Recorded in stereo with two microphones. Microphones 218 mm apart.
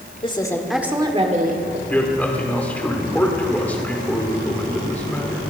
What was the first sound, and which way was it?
A woman speaking, 25° left (ahead or behind).